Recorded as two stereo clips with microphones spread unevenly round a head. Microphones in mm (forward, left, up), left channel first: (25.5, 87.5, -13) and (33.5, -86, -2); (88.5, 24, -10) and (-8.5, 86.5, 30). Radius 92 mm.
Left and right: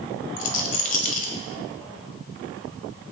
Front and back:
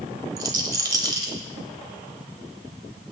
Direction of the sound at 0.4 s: 130° left.